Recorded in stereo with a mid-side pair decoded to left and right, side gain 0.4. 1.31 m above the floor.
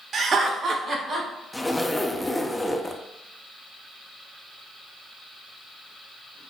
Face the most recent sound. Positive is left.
turn(degrees=10)